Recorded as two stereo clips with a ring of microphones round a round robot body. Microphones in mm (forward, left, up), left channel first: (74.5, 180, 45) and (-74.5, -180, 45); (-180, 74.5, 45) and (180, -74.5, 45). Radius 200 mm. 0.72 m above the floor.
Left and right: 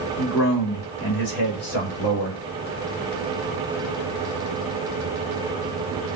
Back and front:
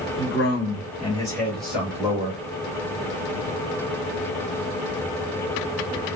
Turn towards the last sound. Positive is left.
turn(degrees=55)